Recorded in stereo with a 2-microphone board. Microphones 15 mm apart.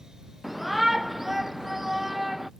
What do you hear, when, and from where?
0.4 s a shout: 15° right (ahead or behind); by 2.5 s 20° right (ahead or behind)